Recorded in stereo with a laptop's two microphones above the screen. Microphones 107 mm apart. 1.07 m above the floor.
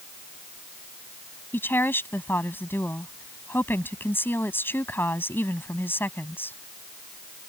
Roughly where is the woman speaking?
Centre.